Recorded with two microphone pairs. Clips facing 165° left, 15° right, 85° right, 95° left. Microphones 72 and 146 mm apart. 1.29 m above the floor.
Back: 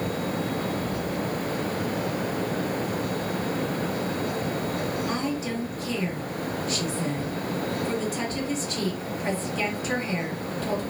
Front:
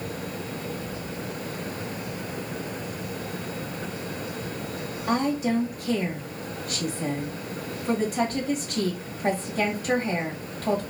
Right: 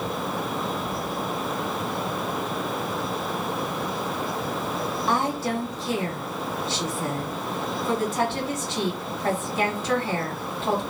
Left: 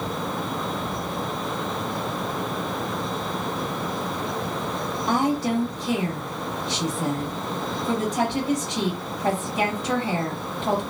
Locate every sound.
5.1 s a woman speaking: 20° left, 1.8 m